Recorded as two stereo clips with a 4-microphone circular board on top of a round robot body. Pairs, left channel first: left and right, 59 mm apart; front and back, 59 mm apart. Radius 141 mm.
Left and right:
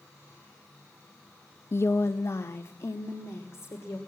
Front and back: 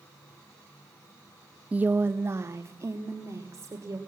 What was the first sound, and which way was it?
A woman speaking, 115° left.